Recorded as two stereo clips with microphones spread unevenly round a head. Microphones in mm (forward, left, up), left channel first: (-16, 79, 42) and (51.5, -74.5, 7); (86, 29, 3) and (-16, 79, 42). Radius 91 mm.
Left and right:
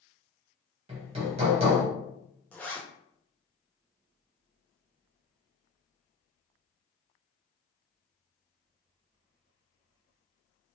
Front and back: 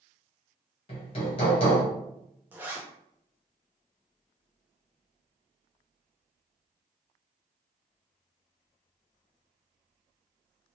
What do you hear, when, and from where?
0.9 s hammering: 30° right, 1.1 m
2.5 s a zipper: 170° left, 0.6 m